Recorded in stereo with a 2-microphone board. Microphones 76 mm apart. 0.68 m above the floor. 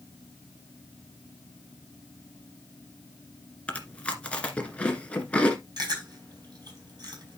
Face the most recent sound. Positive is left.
turn(degrees=-55)  # may be behind; listen again after turning